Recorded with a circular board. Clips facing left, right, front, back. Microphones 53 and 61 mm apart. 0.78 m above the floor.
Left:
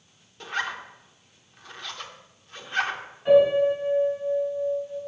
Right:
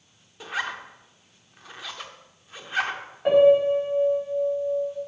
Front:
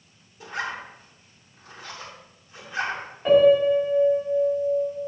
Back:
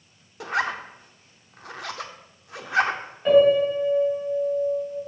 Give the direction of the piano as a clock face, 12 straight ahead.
3 o'clock.